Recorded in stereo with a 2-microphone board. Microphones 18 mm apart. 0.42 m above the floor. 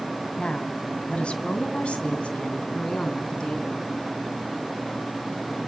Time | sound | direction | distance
0.4 | a woman speaking | 60° left (ahead or behind) | 2.5 m